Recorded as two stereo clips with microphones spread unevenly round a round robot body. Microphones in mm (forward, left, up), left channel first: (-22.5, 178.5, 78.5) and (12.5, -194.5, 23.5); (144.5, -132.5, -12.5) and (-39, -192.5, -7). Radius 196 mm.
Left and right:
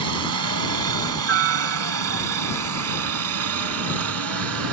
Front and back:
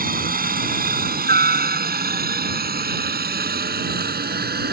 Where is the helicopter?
125° right; by 4.7 s 130° right.